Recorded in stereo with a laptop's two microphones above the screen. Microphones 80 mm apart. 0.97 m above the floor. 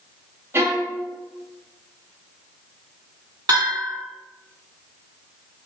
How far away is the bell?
About 2.0 m.